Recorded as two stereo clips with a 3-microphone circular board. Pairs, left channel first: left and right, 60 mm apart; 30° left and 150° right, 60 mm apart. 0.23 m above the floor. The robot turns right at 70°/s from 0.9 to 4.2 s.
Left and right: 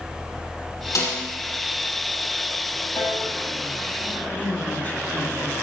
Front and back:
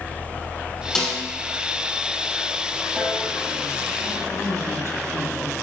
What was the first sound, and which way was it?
A snare drum, 110° left.